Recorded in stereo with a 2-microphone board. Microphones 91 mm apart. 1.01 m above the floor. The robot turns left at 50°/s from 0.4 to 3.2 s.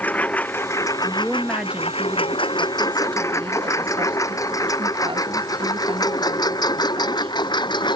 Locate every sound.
0.0 s a lawn mower: 15° left (ahead or behind); by 8.0 s 55° left (ahead or behind)
1.0 s a woman speaking: 20° left; by 7.4 s 90° right